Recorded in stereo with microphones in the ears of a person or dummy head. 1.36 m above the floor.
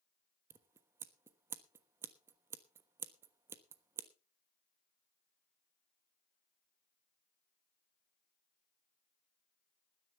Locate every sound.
0.5 s scissors: 15° right (ahead or behind), 1.1 m